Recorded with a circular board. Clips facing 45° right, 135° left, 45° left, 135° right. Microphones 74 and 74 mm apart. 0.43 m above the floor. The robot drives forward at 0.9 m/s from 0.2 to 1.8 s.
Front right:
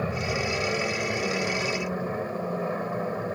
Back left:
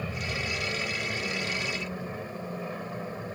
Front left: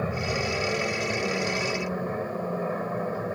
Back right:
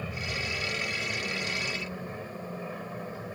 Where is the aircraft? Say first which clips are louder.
Front right 6 dB, front left 7 dB; 5° left.